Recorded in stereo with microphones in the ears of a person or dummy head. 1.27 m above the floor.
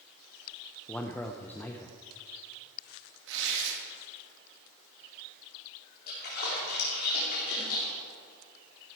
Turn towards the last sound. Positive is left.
turn(degrees=50)  # may be behind; listen again after turning